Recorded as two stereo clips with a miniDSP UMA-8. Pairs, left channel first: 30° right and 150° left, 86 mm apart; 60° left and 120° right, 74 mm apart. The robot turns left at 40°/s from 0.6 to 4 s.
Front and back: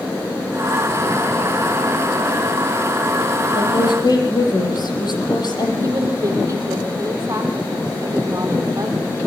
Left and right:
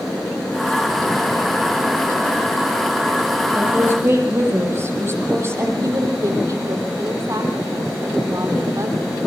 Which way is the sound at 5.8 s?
155° right.